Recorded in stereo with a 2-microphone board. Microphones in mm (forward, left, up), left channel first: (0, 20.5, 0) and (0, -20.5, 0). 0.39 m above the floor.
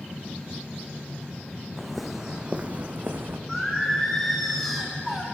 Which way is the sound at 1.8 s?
10° left (ahead or behind).